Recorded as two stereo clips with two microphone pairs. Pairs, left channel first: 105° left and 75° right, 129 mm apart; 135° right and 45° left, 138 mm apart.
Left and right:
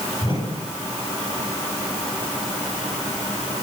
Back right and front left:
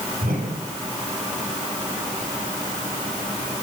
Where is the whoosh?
55° left, 9 m.